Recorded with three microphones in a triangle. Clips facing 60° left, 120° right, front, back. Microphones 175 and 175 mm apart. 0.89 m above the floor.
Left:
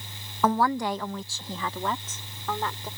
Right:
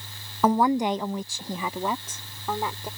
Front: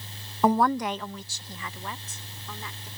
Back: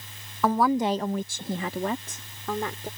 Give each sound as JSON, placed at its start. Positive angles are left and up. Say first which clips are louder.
{"t": 0.4, "sound": "a woman speaking", "louder": "right 3 dB, even", "azimuth_deg": -50}